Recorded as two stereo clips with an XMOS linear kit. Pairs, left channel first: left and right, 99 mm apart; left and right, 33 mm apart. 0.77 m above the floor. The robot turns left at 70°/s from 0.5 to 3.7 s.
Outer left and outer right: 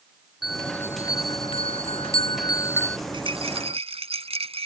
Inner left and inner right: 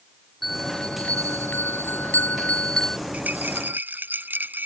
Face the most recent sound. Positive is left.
turn(degrees=-95)